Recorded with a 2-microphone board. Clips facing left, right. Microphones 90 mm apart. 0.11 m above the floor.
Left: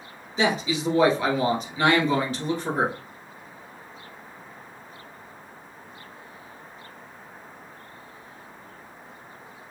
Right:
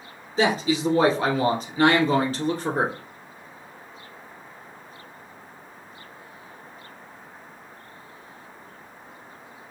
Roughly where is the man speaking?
Right.